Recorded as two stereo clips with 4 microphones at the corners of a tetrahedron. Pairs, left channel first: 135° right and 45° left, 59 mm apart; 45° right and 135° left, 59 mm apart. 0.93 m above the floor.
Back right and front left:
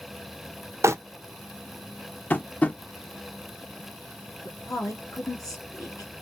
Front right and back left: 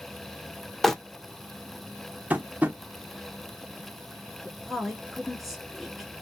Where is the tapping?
Straight behind, 0.7 m.